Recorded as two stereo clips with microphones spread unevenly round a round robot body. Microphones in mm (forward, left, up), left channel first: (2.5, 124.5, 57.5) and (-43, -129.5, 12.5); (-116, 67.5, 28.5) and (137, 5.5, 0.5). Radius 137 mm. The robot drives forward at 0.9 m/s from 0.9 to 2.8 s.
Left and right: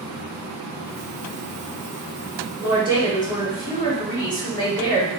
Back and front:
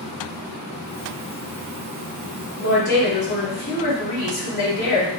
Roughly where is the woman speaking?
Behind left.